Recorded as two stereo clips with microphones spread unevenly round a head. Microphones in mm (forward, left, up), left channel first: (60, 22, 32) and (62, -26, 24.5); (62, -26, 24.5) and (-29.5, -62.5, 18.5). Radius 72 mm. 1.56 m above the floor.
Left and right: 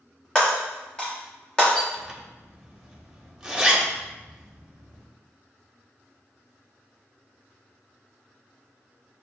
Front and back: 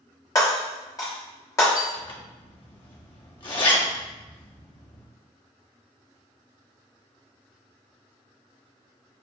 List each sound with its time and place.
0.3 s breaking glass: 55° left, 1.1 m
1.9 s a zipper: 10° right, 1.0 m